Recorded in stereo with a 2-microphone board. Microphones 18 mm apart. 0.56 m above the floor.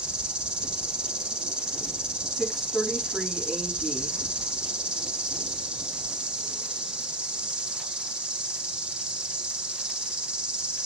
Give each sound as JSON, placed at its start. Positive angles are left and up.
{"t": 0.0, "sound": "an insect", "side_deg": -70, "distance_m": 3.0}
{"t": 2.3, "sound": "a woman speaking", "side_deg": 0, "distance_m": 5.0}